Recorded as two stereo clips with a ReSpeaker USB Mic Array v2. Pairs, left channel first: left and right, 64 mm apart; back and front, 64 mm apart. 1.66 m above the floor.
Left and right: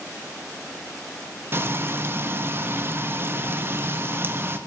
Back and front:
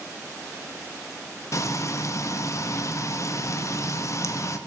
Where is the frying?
140° right, 1.3 m.